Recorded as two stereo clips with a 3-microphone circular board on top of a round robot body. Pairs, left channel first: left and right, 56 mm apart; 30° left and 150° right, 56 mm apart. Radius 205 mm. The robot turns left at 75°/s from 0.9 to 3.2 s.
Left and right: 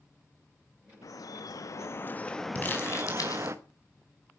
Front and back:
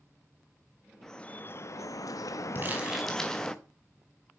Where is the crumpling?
155° left, 4.5 m; by 3.6 s 110° left, 4.5 m.